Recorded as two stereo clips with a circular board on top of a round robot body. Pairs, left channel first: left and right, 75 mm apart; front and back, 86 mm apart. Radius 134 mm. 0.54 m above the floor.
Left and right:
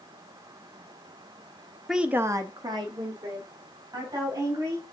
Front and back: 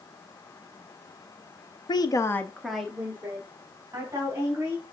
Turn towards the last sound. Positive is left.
turn(degrees=-120)